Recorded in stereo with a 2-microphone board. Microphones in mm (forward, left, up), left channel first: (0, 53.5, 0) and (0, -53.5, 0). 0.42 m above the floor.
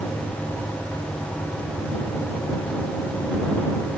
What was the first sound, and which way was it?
Only background noise.